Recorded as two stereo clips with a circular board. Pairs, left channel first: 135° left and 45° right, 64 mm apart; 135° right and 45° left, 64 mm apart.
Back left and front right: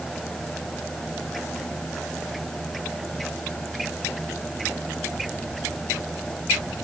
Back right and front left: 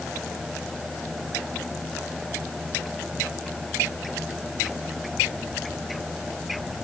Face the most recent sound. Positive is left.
No sound to turn to.